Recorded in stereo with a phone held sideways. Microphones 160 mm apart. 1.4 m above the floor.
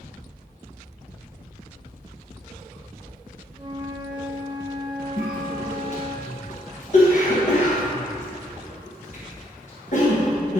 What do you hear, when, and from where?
3.6 s a flute: 30° right (ahead or behind), 0.8 m
5.2 s a cough: 50° left (ahead or behind), 1.4 m